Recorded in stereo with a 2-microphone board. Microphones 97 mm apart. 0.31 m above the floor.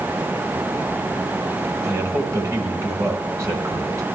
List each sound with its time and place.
1.8 s a man speaking: 30° right (ahead or behind), 1.3 m